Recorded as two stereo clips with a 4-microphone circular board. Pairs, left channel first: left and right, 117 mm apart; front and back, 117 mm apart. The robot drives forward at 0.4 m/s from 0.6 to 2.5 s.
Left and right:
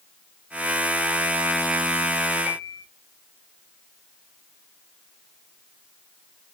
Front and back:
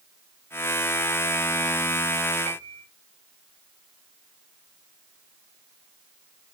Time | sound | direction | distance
2.5 | a piano | straight behind | 4 m